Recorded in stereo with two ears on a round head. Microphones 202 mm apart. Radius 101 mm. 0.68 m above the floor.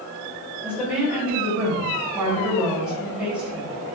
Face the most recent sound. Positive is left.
turn(degrees=-5)  # may be behind; listen again after turning